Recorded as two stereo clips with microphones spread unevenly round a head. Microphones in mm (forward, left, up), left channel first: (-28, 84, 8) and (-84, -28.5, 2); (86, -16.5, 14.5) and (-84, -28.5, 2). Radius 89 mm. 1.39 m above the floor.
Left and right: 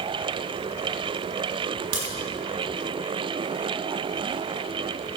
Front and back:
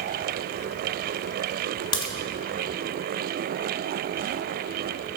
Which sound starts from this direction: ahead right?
A crack, at 1.9 s.